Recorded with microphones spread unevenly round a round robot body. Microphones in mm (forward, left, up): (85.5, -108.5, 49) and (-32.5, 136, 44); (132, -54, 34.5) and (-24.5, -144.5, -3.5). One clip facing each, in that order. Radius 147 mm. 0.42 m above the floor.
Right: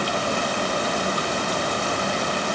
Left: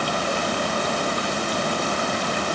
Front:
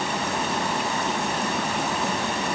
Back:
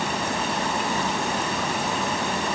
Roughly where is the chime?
I don't hear a chime.